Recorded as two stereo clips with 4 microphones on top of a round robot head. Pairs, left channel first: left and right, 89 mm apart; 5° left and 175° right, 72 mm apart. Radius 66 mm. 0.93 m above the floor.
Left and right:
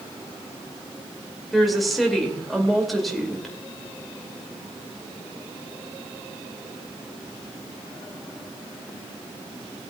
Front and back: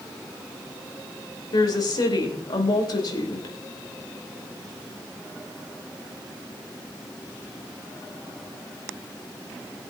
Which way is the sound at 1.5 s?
Straight ahead.